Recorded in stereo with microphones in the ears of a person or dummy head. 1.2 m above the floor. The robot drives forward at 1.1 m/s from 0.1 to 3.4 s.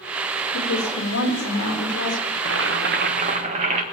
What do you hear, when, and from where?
0.5 s a woman speaking: 75° left (ahead or behind), 4 m; by 2.2 s 55° left (ahead or behind), 4.5 m
2.4 s boiling: 65° right (ahead or behind), 1.1 m; by 3.8 s 40° right (ahead or behind), 1.6 m